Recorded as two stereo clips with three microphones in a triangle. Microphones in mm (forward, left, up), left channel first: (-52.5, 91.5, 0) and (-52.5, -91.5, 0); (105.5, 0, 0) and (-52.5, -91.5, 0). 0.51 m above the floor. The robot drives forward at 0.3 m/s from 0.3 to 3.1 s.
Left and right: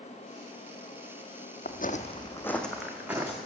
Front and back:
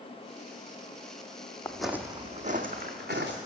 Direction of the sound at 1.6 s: 105° left.